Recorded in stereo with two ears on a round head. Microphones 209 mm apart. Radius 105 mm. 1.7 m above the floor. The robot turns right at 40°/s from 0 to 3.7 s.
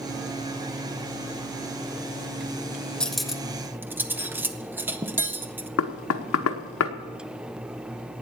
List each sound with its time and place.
3.0 s cutlery clinking: 5° left (ahead or behind), 0.8 m; by 5.7 s 10° right (ahead or behind), 0.8 m
5.8 s knocking: 60° left (ahead or behind), 1.0 m